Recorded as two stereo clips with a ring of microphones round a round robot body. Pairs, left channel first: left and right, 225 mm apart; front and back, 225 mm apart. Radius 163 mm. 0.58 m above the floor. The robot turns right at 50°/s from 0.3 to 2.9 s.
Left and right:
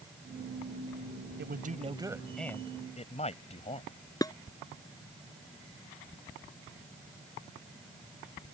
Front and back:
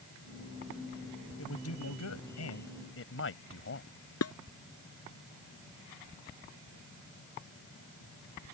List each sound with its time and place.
1.4 s a man speaking: 50° right; by 3.9 s 30° left
4.2 s dishes clattering: 15° left